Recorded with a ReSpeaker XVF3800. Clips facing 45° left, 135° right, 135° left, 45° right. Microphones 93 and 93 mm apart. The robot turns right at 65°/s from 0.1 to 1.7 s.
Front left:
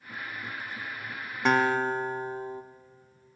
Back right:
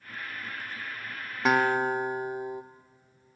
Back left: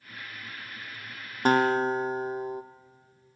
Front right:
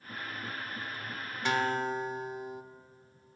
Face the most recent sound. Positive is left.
turn(degrees=155)